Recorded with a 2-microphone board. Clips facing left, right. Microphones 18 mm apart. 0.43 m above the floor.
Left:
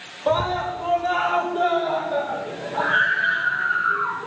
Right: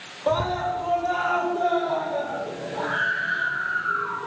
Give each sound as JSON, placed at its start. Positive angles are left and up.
{"t": 0.3, "sound": "a scream", "side_deg": 15, "distance_m": 1.3}